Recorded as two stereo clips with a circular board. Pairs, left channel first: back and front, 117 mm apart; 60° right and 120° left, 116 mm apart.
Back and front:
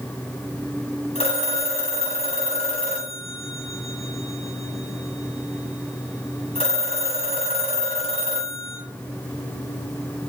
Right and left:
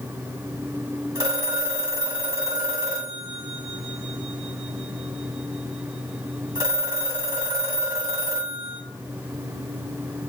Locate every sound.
1.1 s a phone ringing: 175° left, 1.6 m